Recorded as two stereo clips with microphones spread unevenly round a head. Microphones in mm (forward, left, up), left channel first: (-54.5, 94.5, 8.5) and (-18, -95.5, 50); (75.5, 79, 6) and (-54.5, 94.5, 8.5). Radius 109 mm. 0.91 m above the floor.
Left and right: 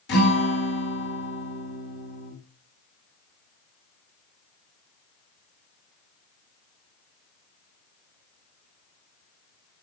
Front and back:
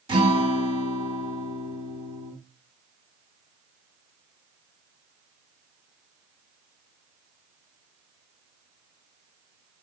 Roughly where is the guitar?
Behind left.